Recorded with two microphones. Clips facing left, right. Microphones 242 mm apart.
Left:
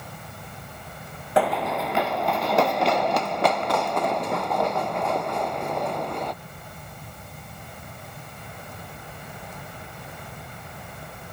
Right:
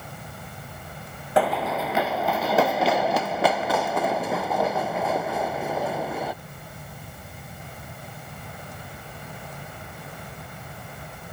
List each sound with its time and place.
1.4 s running footsteps: centre (ahead or behind); by 6.3 s 5° right (ahead or behind)